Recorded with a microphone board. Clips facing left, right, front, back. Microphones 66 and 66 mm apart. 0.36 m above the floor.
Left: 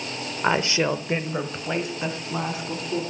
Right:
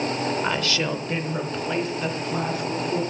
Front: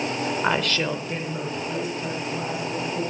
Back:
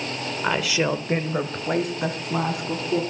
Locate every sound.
0.4 s a woman speaking: 65° left, 0.8 m; by 3.0 s 170° left, 3 m